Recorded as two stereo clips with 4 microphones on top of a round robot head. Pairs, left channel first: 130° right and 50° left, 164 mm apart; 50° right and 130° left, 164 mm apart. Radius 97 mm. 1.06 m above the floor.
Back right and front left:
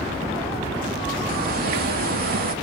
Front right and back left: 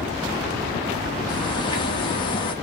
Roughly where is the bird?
Ahead.